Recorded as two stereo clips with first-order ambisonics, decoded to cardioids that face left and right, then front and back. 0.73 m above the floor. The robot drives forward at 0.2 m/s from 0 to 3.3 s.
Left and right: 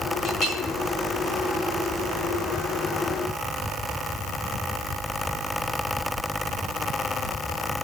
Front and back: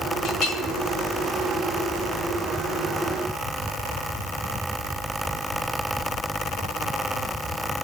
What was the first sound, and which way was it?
A clink, 50° left.